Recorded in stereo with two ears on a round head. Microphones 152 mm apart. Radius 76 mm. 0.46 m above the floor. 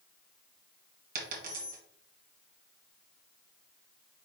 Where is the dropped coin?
50° right (ahead or behind), 1.9 m.